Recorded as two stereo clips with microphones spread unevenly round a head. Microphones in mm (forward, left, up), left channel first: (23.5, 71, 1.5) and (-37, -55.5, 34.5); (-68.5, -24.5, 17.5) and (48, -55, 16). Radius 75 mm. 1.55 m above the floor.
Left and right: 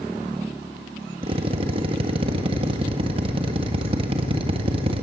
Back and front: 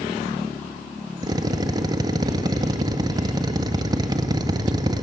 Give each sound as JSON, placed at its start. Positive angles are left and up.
{"t": 1.2, "sound": "a drill", "azimuth_deg": -70, "distance_m": 1.5}